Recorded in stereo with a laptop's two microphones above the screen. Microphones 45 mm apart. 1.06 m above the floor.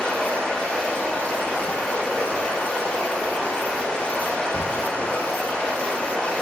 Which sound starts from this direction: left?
Running water, at 0.0 s.